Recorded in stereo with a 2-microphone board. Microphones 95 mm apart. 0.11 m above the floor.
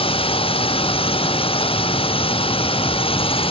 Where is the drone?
80° left.